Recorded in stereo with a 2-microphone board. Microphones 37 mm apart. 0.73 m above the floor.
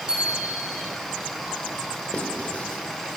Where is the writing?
40° left (ahead or behind), 4 m.